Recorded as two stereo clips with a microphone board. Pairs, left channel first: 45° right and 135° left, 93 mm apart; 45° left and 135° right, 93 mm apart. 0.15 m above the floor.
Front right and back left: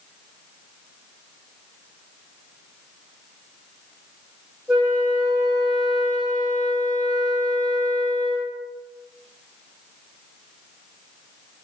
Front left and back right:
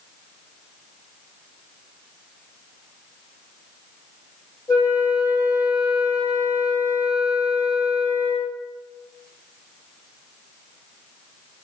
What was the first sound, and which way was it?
A flute, 40° left.